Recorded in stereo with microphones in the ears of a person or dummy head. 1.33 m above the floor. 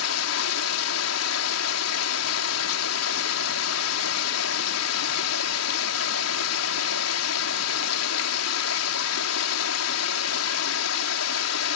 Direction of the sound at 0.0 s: 85° left.